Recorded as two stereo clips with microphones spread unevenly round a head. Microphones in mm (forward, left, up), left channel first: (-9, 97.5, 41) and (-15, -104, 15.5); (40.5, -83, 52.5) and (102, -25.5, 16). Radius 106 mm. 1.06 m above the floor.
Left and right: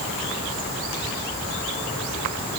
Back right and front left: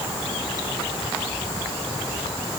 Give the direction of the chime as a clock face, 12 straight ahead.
I don't hear a chime.